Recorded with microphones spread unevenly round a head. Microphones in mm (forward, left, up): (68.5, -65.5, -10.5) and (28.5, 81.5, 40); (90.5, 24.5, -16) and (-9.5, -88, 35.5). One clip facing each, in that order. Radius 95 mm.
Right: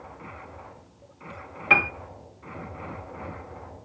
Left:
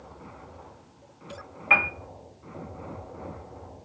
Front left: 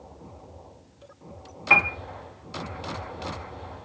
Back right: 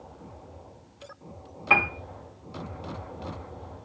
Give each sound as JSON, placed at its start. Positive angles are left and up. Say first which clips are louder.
{"t": 1.7, "sound": "a piano", "louder": "right 2 dB, even", "azimuth_deg": -105, "distance_m": 0.5}